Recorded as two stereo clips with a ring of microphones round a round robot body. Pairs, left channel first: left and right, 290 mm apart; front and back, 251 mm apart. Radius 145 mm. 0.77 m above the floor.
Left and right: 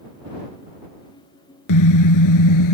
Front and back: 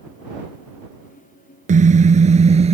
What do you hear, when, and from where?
1.7 s a car horn: 120° left; by 2.8 s 115° left